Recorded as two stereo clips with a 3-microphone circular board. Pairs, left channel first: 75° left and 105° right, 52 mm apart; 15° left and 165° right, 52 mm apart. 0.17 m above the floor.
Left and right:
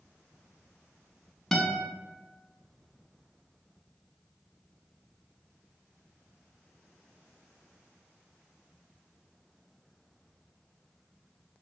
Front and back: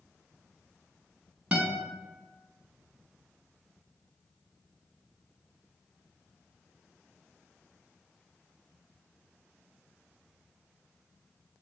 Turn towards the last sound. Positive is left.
turn(degrees=150)